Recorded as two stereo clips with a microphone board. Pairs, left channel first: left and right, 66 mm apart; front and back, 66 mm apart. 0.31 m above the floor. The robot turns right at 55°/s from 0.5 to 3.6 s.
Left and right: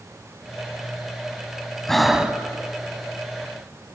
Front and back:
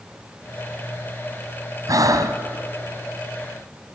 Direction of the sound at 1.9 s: 170° left.